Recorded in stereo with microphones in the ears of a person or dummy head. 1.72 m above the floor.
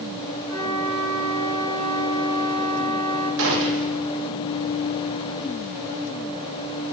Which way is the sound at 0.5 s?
70° right (ahead or behind).